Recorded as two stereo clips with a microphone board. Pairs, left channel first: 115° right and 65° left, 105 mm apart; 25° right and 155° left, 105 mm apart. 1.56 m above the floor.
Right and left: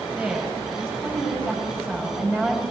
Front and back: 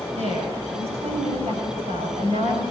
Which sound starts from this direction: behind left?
A woman speaking, at 0.2 s.